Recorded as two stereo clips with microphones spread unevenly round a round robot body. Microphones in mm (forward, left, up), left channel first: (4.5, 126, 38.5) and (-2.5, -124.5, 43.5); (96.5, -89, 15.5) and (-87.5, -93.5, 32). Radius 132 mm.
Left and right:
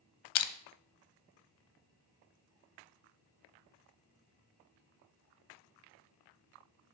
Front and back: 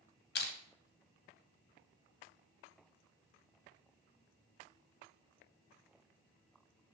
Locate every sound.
0.3 s crushing: 55° left, 0.5 m